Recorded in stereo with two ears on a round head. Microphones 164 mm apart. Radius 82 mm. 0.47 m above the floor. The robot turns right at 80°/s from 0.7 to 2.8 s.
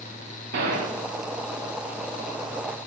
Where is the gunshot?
60° right (ahead or behind), 0.6 m; by 1.0 s 45° right (ahead or behind), 0.6 m.